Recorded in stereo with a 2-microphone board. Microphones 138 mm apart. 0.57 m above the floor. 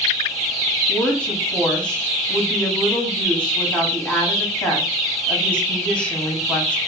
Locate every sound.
0.9 s a woman speaking: 10° left (ahead or behind), 0.9 m